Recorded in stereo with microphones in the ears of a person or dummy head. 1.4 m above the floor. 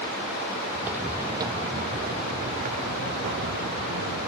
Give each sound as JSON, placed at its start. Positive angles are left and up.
{"t": 0.8, "sound": "footsteps", "side_deg": -5}